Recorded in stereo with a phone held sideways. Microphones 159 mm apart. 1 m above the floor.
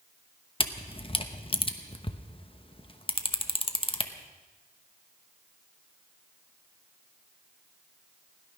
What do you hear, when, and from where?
0.6 s a camera shutter: 35° left (ahead or behind), 0.9 m